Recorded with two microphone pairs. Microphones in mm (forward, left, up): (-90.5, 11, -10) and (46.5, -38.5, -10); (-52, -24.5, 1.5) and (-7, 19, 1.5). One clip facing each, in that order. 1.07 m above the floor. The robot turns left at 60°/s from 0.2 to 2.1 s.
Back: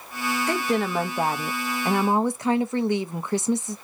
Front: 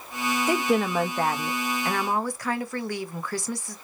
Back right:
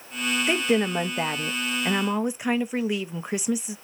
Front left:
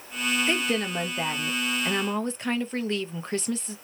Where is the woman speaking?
90° right, 0.6 m; by 3.8 s 170° left, 0.6 m.